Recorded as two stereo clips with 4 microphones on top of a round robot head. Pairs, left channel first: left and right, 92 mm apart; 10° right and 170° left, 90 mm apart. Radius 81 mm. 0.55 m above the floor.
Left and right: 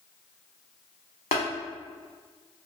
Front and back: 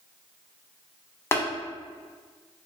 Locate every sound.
1.3 s tapping: 50° left, 0.6 m